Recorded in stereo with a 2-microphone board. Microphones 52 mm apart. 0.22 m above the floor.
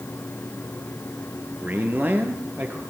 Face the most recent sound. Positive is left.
turn(degrees=-35)  # may be behind; listen again after turning